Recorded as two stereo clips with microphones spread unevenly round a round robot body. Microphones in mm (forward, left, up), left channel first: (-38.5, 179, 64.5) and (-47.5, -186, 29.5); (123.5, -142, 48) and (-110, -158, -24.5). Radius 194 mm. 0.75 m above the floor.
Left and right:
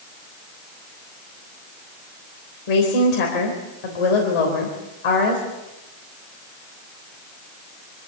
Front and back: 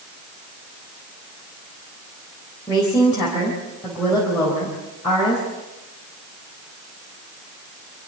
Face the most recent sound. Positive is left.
turn(degrees=90)